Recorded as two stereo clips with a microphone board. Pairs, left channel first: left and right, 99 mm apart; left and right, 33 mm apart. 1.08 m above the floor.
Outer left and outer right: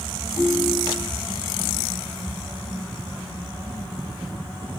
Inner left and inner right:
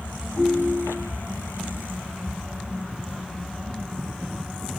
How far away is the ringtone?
About 3 m.